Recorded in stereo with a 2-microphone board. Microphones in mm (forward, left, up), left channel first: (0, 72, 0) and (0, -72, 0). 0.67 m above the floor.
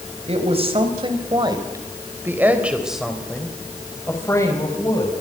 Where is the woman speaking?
45° right (ahead or behind), 4.5 m; by 5.1 s 30° left (ahead or behind), 5 m.